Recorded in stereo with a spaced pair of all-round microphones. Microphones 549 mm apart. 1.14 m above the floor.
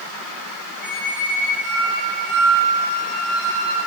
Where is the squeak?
20° right (ahead or behind), 2.5 m.